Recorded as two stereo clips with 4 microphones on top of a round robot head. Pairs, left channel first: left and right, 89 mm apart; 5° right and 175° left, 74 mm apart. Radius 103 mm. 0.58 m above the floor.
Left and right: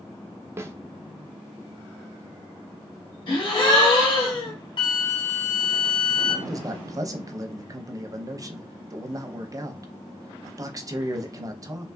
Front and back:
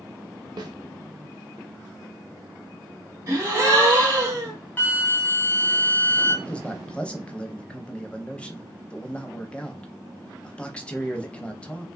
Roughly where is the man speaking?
Right.